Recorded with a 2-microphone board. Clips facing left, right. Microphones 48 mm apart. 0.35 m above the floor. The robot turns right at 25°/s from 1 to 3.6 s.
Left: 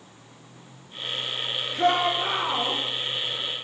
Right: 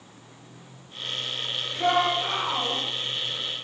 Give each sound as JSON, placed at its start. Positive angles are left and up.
{"t": 1.7, "sound": "a shout", "side_deg": 45, "distance_m": 6.0}